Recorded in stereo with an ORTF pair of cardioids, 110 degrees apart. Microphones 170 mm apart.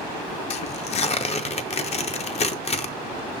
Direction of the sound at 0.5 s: 40° left.